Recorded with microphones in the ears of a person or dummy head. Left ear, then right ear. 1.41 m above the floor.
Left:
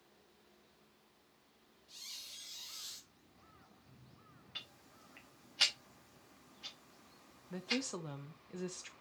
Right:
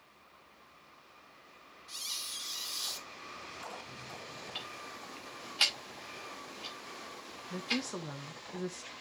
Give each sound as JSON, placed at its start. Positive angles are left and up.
{"t": 1.9, "sound": "a squeak", "side_deg": -50, "distance_m": 2.0}
{"t": 4.5, "sound": "ticking", "side_deg": -10, "distance_m": 0.9}
{"t": 7.5, "sound": "a woman speaking", "side_deg": 5, "distance_m": 0.9}